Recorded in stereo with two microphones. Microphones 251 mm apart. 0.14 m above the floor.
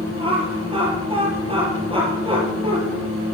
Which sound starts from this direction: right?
Laughter, at 0.2 s.